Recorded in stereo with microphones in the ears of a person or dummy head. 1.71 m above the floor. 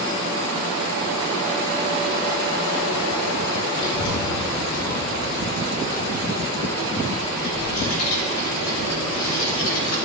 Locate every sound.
3.8 s a child speaking: 75° left (ahead or behind), 1.6 m; by 9.9 s 70° left (ahead or behind), 5 m